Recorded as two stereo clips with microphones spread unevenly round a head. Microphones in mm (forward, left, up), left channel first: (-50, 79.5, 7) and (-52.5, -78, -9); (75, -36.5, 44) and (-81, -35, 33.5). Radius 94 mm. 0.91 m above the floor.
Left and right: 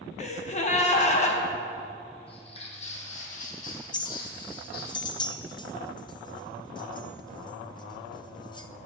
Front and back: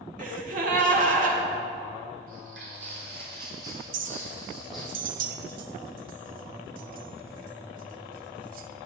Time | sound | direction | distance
0.2 | a gasp | 135° left | 1.1 m
2.3 | footsteps | 135° left | 1.9 m
3.9 | a clink | 155° left | 0.6 m